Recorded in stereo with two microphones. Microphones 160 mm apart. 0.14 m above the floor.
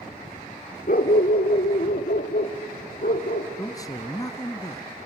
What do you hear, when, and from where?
0.9 s a dog barking: 65° left (ahead or behind), 0.8 m; by 3.5 s 75° left (ahead or behind), 2.5 m
3.6 s a man speaking: 25° left (ahead or behind), 1.1 m